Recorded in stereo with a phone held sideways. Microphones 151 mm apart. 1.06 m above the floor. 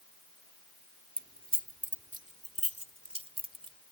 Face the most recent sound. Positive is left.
turn(degrees=-40)  # may be behind; listen again after turning